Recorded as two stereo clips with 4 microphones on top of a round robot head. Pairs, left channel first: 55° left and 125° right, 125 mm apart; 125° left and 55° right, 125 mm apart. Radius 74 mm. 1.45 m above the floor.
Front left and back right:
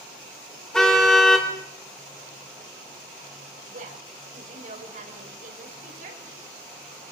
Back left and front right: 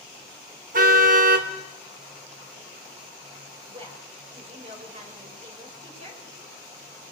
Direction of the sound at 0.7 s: 30° right.